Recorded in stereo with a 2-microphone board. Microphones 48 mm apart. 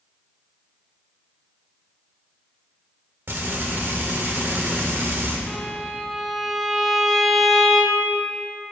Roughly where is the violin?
Centre.